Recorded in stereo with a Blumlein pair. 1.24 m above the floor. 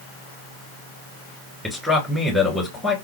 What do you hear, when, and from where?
1.6 s a man speaking: straight ahead, 1.2 m